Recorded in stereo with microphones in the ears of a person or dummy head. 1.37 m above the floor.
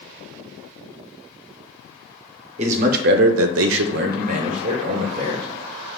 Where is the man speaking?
35° right (ahead or behind), 0.7 m; by 5.5 s 25° right (ahead or behind), 1.3 m.